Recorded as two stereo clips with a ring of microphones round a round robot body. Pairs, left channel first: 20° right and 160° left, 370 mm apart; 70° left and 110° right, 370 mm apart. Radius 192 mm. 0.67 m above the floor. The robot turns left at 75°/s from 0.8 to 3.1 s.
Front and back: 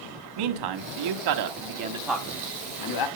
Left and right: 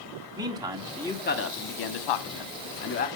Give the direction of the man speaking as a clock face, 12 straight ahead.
6 o'clock.